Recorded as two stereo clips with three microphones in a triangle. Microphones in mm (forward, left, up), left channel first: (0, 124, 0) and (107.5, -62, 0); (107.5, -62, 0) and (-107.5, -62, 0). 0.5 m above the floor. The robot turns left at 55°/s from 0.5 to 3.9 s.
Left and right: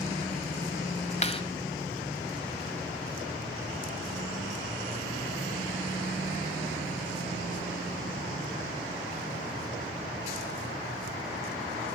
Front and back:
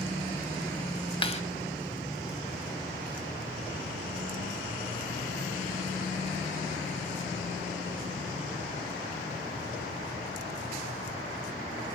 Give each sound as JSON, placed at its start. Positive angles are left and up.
{"t": 1.2, "sound": "a clap", "azimuth_deg": 65, "distance_m": 2.5}